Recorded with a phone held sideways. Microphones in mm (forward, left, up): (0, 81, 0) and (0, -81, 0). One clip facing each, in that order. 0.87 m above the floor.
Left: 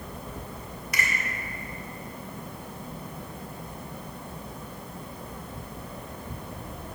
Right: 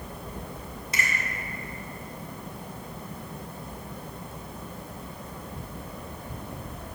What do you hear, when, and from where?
0.9 s a finger snap: 30° right (ahead or behind), 1.7 m